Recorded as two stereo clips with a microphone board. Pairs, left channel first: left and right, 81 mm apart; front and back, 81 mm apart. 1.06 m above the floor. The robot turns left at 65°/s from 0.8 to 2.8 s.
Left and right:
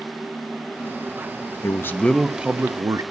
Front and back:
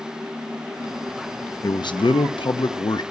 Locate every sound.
1.6 s a man speaking: 40° left, 0.9 m; by 3.0 s 35° right, 0.9 m